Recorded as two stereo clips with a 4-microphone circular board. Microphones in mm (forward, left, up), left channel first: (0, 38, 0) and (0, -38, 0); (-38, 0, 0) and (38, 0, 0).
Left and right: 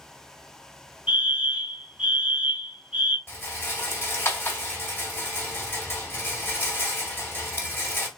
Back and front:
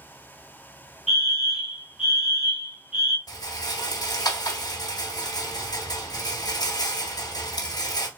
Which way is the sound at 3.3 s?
150° left.